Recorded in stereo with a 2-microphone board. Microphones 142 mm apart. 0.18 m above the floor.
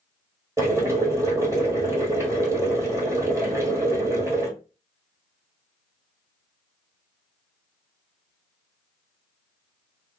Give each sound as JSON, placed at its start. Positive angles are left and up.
{"t": 0.6, "sound": "boiling", "side_deg": -20, "distance_m": 1.4}